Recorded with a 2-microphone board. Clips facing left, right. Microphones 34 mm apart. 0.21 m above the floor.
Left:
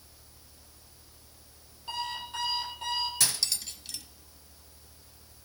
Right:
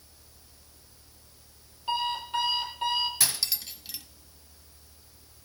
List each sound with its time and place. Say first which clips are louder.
1.9 s an alarm clock: right 6 dB; 25° right (ahead or behind), 3 m
3.2 s cutlery clinking: even; 15° right (ahead or behind), 0.6 m